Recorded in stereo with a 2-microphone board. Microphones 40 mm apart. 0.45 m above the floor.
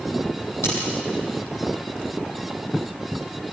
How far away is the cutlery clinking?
About 9 m.